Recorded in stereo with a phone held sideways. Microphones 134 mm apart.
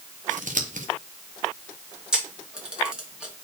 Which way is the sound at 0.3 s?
70° right (ahead or behind).